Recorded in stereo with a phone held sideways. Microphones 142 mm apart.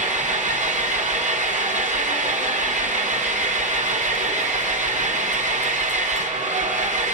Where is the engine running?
60° right (ahead or behind), 0.9 m.